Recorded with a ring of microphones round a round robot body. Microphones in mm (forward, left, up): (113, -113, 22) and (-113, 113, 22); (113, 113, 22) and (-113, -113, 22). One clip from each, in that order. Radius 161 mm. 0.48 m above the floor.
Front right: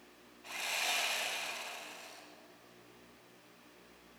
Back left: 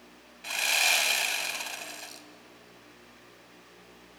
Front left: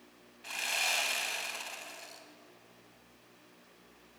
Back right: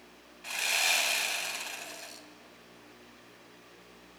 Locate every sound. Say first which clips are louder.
0.4 s sawing: back left 11 dB, back right 4 dB; 145° left, 3 m